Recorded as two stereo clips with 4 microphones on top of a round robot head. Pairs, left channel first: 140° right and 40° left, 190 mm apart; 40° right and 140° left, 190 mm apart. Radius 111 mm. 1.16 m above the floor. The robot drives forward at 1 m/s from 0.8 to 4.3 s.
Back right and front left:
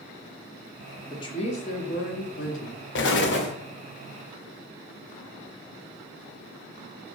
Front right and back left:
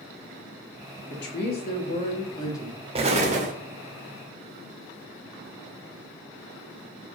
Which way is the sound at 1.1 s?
70° right.